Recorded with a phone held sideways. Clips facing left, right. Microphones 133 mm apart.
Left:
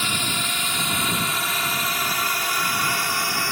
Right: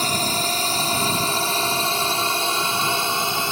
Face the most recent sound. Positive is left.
turn(degrees=-20)  # may be behind; listen again after turning